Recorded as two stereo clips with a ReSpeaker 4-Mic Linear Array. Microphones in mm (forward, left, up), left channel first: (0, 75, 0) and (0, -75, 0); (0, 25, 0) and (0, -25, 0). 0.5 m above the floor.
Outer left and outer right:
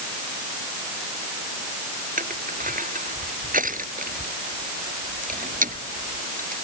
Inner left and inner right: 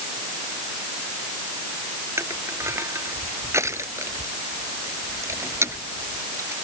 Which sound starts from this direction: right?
Crushing, at 2.2 s.